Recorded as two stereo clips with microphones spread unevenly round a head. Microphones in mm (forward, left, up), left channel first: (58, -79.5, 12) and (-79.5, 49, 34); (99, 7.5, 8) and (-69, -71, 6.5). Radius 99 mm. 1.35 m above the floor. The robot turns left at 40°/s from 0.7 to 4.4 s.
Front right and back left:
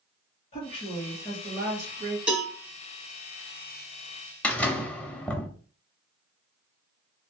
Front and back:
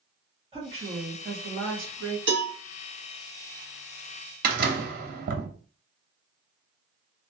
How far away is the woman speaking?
About 2.5 m.